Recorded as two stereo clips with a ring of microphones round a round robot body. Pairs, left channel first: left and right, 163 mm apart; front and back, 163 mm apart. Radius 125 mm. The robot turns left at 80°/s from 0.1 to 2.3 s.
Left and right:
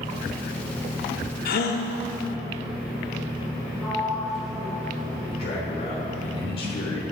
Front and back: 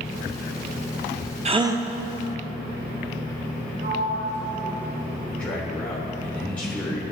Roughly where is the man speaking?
Left.